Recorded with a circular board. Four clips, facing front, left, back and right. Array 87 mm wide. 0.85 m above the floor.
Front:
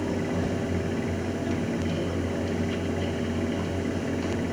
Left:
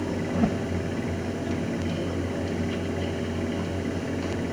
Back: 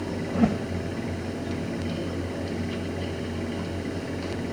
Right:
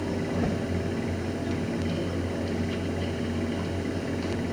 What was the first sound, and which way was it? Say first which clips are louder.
A whoosh: left 5 dB, back 4 dB; 160° left.